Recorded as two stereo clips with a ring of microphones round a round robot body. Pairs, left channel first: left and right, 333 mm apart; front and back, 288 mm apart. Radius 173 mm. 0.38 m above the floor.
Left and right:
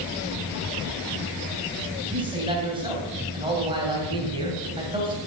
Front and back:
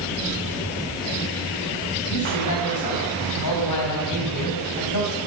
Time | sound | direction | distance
2.1 | a man speaking | 15° right | 2.5 m